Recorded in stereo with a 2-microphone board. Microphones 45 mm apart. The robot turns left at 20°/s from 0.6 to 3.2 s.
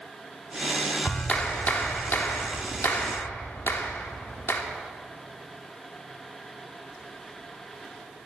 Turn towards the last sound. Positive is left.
turn(degrees=105)